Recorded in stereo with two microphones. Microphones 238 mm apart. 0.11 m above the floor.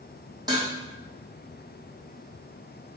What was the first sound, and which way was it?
Dishes clattering, 15° right (ahead or behind).